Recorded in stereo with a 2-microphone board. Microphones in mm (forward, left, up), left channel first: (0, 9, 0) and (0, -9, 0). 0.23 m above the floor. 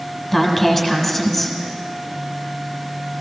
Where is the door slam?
I don't hear a door slam.